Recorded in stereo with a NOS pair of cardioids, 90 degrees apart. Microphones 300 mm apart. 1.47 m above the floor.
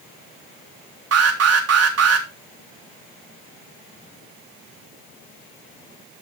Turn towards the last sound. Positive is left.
turn(degrees=-55)